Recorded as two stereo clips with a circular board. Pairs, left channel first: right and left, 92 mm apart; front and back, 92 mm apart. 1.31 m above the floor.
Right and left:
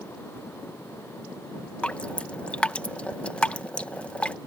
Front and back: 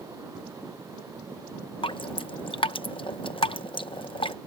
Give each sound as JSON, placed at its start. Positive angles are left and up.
{"t": 1.8, "sound": "dripping", "azimuth_deg": -15}